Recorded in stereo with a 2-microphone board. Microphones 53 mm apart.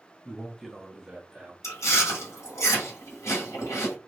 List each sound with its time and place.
0.2 s a man speaking: 20° left (ahead or behind), 0.8 m; by 1.5 s 20° right (ahead or behind), 1.5 m
1.6 s chewing: 65° left (ahead or behind), 1.8 m